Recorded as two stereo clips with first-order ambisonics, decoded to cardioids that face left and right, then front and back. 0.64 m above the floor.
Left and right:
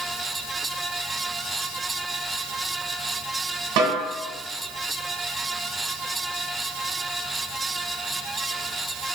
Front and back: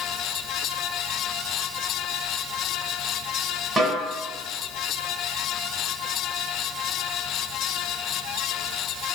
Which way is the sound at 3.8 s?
100° right.